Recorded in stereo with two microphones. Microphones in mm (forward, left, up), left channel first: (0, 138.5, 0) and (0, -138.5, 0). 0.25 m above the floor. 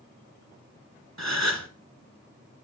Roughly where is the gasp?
Right.